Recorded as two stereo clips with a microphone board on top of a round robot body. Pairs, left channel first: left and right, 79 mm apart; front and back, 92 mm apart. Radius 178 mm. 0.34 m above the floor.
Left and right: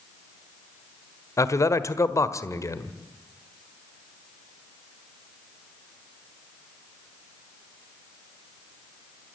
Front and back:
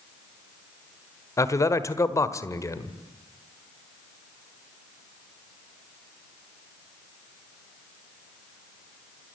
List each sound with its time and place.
1.4 s a man speaking: 50° left, 1.7 m